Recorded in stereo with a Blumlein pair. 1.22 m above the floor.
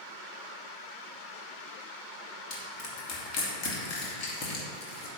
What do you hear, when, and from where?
2.5 s crushing: 35° left, 2.5 m